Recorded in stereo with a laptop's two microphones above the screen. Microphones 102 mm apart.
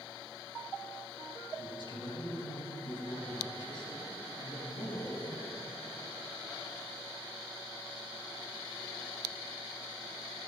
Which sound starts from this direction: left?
A man speaking, at 1.6 s.